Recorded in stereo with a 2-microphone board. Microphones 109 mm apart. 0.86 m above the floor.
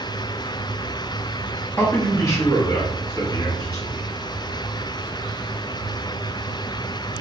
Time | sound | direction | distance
1.8 | a man speaking | 15° left (ahead or behind) | 0.8 m